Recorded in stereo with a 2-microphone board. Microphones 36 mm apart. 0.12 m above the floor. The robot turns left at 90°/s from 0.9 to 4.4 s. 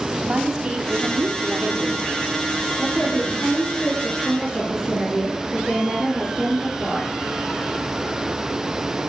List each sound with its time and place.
0.2 s a woman speaking: 20° right, 3 m; by 2.4 s 155° right, 3 m
2.8 s a woman speaking: 140° left, 8.5 m; by 7.1 s 5° right, 8.5 m